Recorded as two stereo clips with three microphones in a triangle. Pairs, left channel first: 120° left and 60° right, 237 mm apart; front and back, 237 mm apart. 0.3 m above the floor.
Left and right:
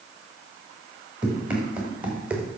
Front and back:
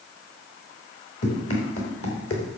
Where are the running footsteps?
25° left, 5.5 m.